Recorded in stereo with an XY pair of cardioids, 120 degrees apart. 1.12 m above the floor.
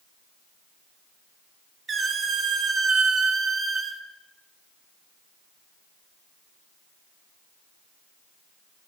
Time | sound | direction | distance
1.9 | a squeak | 35° right | 0.8 m